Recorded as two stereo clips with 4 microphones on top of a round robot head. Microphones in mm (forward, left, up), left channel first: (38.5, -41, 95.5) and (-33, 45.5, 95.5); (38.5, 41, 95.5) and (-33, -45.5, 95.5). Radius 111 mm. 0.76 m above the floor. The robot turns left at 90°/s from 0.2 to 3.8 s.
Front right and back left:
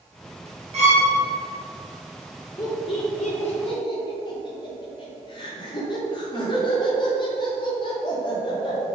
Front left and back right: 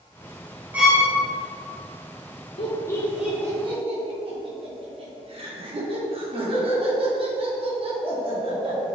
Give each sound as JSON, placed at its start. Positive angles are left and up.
{"t": 0.7, "sound": "a violin", "azimuth_deg": 155, "distance_m": 2.0}
{"t": 2.6, "sound": "laughter", "azimuth_deg": 15, "distance_m": 2.5}